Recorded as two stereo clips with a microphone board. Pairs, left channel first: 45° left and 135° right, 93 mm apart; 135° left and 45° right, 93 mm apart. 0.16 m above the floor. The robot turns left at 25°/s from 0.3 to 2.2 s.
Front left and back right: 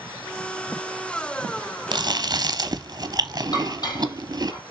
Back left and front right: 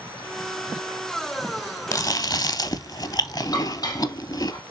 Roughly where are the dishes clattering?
Left.